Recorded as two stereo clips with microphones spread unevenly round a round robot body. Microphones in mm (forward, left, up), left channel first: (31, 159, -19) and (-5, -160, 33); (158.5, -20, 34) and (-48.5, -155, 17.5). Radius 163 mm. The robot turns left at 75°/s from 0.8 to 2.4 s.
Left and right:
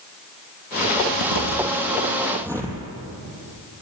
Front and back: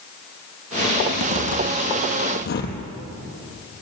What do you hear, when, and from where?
1.0 s a zipper: 95° left, 5 m; by 2.8 s 15° right, 5 m